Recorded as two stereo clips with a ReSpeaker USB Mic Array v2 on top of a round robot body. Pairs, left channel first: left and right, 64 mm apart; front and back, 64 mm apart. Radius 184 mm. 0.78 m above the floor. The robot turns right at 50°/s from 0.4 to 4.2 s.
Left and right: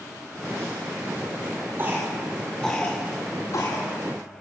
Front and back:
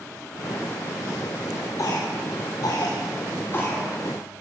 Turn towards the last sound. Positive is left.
turn(degrees=85)